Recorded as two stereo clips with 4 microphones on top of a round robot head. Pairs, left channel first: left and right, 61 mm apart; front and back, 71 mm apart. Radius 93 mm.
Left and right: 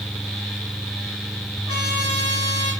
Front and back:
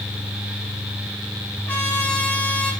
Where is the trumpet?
65° left, 3.5 m.